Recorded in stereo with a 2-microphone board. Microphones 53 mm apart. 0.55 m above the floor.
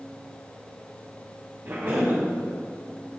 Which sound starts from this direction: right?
A cough, at 1.6 s.